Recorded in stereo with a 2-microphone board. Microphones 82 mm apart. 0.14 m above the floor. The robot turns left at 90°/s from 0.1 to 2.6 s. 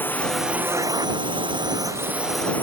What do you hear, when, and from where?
0.0 s a drone: 25° left; by 2.6 s 160° left